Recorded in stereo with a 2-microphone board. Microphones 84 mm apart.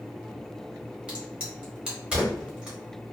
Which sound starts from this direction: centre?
A crack, at 1.1 s.